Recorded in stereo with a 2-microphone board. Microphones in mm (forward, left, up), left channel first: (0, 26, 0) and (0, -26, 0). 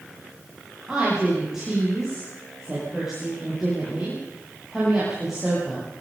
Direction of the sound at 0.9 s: 10° right (ahead or behind).